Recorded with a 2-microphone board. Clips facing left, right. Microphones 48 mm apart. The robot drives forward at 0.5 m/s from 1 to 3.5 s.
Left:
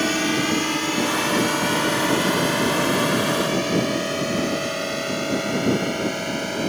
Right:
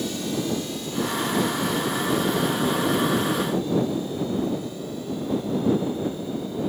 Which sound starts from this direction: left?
A drone, at 0.0 s.